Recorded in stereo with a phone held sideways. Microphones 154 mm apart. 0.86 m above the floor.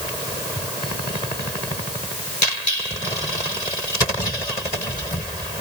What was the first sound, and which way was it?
Only background noise.